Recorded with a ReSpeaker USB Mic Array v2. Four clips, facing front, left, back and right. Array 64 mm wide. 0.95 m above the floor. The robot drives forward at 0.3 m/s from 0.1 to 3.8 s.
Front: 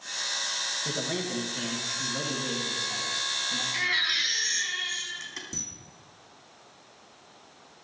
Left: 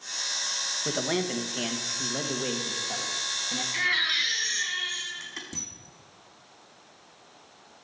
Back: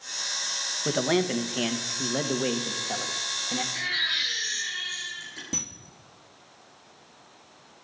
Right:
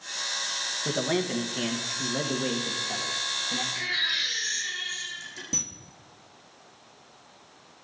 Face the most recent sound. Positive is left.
turn(degrees=-155)